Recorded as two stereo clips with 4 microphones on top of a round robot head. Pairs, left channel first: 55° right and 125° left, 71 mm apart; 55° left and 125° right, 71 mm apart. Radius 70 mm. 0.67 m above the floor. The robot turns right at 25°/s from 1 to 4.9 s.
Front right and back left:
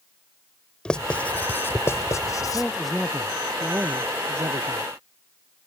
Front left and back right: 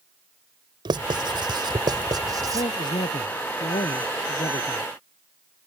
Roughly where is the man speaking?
Ahead left.